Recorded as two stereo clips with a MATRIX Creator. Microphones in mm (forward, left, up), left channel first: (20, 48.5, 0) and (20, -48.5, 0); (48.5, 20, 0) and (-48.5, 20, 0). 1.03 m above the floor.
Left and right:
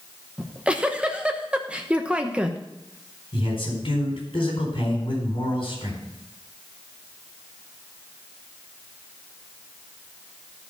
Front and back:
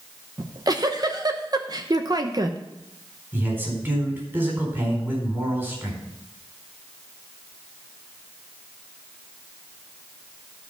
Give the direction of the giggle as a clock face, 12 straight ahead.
5 o'clock.